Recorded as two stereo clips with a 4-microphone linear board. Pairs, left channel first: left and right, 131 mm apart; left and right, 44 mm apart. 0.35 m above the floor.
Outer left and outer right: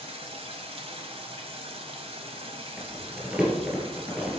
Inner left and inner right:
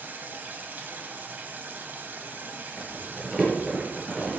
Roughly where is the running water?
Right.